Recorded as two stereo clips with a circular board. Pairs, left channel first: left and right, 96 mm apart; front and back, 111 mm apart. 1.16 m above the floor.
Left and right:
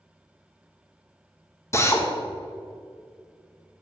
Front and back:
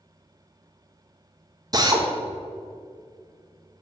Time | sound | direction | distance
1.7 | a drill | 140° left | 0.9 m